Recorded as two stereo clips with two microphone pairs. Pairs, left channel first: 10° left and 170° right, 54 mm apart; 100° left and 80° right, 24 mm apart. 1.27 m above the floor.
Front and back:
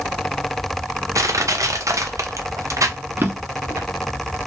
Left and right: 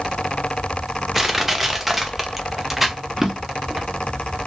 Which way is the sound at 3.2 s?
150° right.